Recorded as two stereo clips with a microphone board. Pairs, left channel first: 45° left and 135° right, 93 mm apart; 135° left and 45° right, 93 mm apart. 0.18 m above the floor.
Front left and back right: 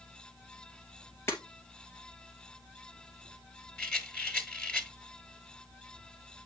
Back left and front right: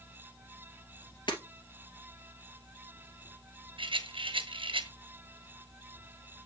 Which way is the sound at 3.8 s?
35° right.